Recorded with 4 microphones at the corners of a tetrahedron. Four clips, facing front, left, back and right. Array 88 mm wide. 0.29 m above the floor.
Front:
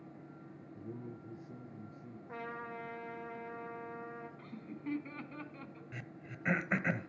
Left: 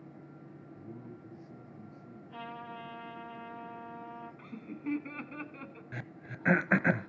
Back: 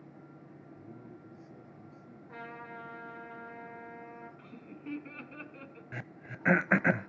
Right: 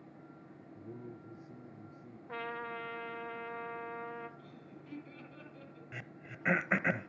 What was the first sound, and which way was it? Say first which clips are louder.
A man speaking: right 1 dB, front 5 dB; 30° right.